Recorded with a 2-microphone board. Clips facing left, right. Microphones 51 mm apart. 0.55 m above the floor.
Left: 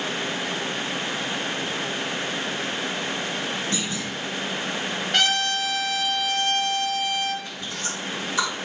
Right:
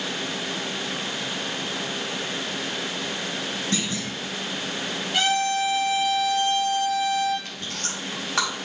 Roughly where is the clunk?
Right.